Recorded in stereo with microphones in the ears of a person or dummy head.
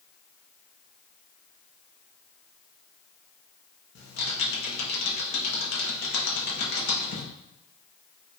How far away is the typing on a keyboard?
About 1.1 m.